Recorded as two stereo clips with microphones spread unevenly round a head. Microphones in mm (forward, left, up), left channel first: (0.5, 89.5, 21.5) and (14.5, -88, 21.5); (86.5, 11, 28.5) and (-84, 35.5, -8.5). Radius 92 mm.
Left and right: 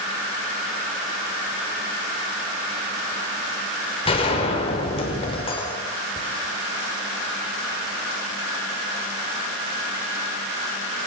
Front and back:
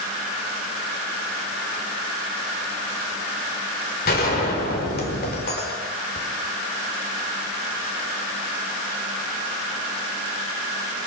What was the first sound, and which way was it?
A gunshot, 35° left.